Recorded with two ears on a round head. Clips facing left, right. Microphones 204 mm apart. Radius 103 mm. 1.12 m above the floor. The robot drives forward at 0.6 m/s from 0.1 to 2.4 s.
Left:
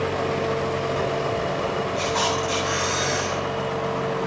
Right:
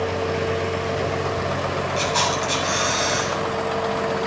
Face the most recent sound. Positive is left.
turn(degrees=-55)  # may be behind; listen again after turning